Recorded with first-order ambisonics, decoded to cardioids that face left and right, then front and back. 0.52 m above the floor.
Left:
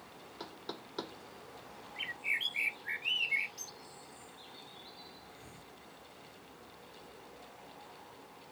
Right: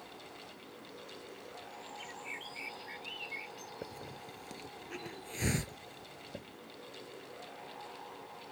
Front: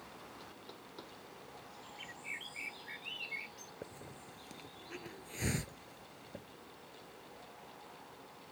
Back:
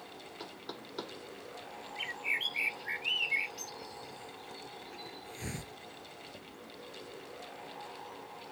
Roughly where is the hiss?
Right.